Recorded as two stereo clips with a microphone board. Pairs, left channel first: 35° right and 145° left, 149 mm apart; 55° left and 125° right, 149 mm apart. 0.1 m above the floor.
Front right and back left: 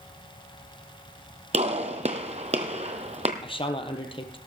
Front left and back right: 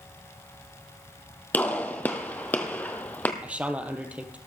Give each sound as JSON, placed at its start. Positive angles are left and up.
{"t": 1.5, "sound": "a gunshot", "azimuth_deg": 130, "distance_m": 1.2}
{"t": 3.4, "sound": "a man speaking", "azimuth_deg": -50, "distance_m": 1.4}